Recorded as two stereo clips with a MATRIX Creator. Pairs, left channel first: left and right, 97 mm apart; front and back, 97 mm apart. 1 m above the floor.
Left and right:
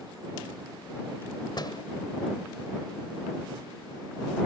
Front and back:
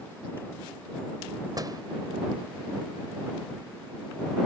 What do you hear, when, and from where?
1.6 s a door slam: 130° left